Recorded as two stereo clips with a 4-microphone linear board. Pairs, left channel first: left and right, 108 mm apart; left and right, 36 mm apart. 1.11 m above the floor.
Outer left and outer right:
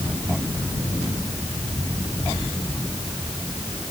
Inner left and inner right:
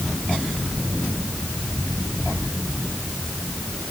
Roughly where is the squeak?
No squeak in this recording.